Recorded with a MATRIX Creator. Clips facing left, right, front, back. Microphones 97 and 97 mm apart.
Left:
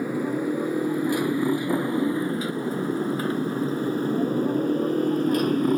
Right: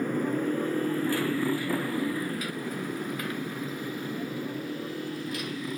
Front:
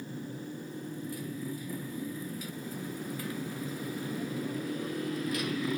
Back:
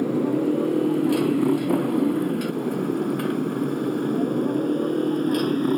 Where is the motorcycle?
170° left; by 5.8 s 135° left.